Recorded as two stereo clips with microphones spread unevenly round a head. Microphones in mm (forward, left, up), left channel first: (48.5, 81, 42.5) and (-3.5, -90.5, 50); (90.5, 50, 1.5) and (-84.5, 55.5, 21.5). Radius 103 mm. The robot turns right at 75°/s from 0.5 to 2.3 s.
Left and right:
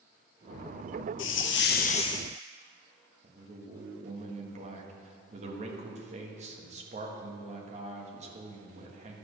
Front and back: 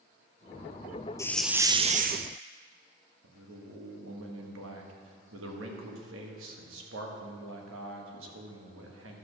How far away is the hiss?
About 0.7 m.